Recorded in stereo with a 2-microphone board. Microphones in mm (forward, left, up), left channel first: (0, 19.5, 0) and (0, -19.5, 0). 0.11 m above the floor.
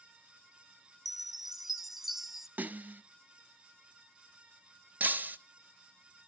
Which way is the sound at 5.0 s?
45° right (ahead or behind).